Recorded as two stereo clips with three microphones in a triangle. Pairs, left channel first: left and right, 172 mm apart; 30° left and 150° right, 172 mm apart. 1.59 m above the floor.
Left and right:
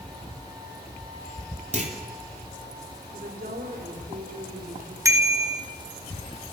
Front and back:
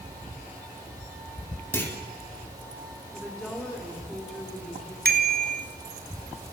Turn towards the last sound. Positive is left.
turn(degrees=-160)